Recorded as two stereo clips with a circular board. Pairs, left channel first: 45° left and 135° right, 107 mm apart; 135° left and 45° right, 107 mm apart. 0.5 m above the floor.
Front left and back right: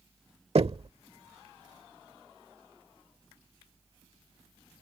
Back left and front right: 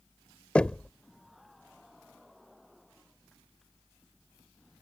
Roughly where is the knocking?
Behind right.